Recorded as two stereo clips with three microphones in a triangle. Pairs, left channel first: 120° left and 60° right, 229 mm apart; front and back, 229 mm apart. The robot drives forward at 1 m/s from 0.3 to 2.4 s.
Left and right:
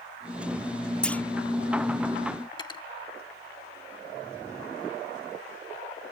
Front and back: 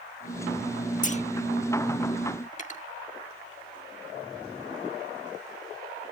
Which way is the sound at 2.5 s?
50° left.